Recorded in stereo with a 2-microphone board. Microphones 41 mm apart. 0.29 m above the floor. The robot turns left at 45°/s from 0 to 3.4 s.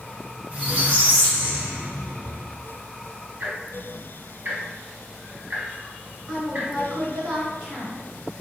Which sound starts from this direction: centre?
A woman speaking, at 6.3 s.